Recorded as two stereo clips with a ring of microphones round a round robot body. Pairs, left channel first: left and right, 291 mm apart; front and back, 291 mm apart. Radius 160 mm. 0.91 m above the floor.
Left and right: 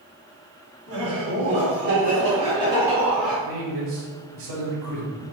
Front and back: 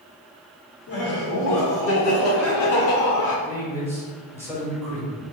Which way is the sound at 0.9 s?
50° right.